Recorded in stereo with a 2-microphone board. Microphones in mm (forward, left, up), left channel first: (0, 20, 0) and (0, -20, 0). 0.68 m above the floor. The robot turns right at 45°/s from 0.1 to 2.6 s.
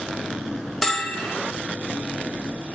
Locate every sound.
0.8 s a bell: 10° left (ahead or behind), 0.6 m; by 1.3 s 15° right (ahead or behind), 0.6 m